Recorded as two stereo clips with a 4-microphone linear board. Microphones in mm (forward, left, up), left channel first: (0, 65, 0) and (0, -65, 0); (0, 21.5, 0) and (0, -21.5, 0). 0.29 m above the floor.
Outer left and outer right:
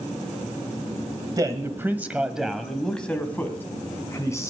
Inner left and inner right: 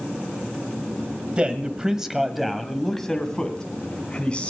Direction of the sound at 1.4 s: 30° right (ahead or behind).